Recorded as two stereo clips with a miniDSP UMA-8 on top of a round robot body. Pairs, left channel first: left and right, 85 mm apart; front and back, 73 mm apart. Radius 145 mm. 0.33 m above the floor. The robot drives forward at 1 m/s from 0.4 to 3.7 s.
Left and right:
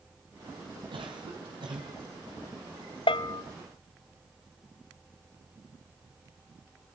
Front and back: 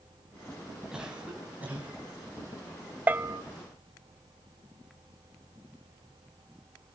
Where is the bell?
110° left, 0.7 m; by 3.4 s 130° left, 0.9 m.